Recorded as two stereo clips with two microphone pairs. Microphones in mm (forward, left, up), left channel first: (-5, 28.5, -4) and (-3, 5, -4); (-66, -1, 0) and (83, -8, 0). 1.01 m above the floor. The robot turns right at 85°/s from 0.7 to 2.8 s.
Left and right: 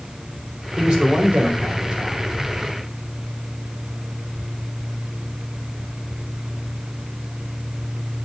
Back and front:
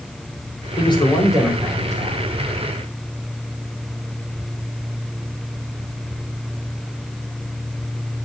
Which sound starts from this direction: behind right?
A man speaking, at 0.8 s.